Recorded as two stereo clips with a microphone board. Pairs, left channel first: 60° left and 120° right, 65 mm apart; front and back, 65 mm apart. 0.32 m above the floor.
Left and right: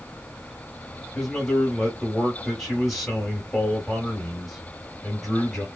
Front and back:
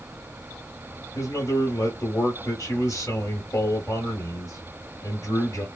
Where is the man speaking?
25° right, 1.2 m.